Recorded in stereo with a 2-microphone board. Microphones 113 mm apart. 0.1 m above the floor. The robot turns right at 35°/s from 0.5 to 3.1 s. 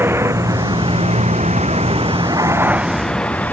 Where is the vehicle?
20° right (ahead or behind); by 3.5 s 15° left (ahead or behind).